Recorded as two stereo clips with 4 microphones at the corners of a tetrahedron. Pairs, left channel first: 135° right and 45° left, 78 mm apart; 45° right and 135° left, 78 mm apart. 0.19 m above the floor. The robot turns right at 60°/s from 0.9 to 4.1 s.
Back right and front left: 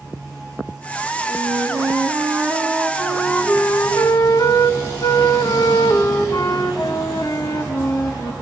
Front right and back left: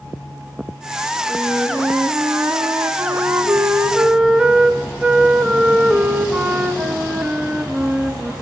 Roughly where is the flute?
Ahead left.